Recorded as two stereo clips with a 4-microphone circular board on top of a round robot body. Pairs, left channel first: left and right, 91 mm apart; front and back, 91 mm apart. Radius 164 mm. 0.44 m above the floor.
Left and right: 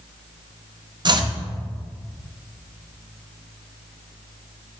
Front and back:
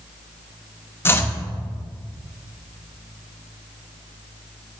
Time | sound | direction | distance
1.1 | chopping | 60° right | 0.8 m